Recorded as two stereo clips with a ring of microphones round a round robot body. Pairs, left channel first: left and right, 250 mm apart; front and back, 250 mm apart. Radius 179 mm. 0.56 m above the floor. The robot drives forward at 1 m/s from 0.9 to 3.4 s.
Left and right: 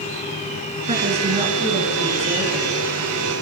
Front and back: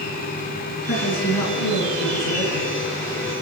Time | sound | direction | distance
0.9 | a woman speaking | 25° right | 9 m